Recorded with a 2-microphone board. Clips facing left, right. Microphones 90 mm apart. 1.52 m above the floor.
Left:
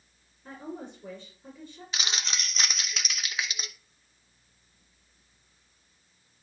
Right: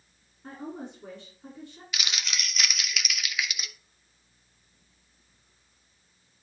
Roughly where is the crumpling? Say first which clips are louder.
Left 1 dB; left.